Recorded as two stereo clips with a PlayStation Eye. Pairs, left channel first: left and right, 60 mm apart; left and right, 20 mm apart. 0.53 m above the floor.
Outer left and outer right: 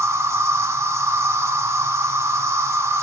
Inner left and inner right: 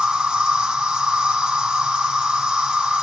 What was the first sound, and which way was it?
An insect, 50° right (ahead or behind).